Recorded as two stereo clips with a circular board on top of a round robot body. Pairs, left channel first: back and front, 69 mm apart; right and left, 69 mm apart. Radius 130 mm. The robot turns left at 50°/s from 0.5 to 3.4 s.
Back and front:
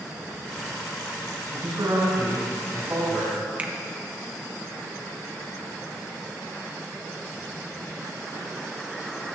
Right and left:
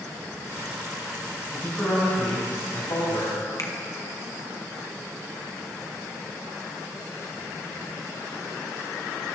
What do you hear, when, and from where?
1.5 s a man speaking: 5° right, 5.5 m; by 3.3 s 95° right, 5.5 m
3.6 s a finger snap: 65° right, 1.3 m